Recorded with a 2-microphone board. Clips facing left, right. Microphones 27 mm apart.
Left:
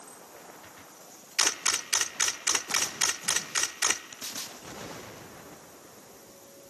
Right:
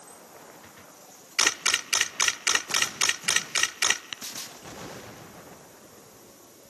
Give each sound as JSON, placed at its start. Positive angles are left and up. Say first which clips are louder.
{"t": 1.4, "sound": "a camera shutter", "louder": "right 4 dB", "side_deg": -35, "distance_m": 0.7}
{"t": 4.1, "sound": "tapping", "louder": "right 7 dB", "side_deg": -60, "distance_m": 1.2}